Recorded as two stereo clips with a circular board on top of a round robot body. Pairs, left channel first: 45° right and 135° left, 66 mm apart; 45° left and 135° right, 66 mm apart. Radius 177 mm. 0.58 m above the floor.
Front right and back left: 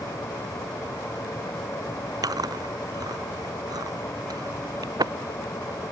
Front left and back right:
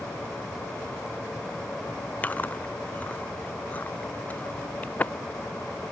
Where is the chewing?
110° left.